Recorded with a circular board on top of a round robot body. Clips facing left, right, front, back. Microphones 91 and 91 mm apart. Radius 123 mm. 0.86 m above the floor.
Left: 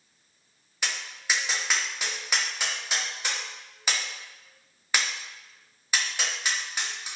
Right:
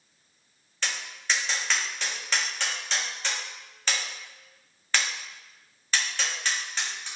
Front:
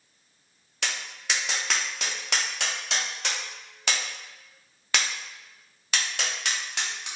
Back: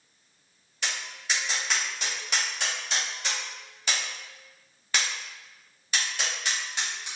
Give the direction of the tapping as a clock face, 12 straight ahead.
12 o'clock.